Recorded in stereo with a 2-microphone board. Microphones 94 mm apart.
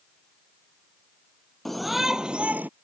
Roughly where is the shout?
Centre.